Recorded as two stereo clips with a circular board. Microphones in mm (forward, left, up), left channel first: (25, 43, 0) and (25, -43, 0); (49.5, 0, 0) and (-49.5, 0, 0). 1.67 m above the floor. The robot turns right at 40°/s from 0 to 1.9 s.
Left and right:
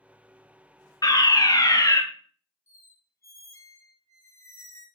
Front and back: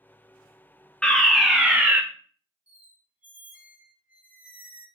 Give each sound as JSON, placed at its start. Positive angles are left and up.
{"t": 1.0, "sound": "a fire alarm", "azimuth_deg": 80, "distance_m": 0.6}
{"t": 2.7, "sound": "a squeak", "azimuth_deg": 115, "distance_m": 0.7}